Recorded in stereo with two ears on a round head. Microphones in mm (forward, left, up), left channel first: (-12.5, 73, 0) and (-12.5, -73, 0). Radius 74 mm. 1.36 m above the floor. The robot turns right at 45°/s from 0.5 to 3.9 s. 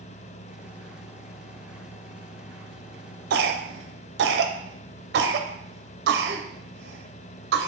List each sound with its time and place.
3.3 s a cough: 70° right (ahead or behind), 0.5 m